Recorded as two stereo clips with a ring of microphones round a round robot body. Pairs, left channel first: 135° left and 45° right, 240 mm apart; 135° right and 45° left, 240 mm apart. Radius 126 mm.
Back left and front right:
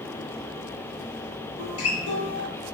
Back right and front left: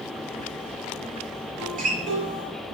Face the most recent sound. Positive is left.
turn(degrees=105)